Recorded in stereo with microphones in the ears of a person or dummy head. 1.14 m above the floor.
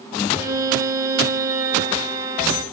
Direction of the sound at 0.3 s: 15° right (ahead or behind).